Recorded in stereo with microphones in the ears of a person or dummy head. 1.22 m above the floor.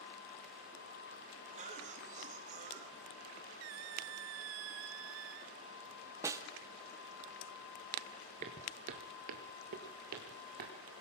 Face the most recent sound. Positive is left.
turn(degrees=-45)  # may be behind; listen again after turning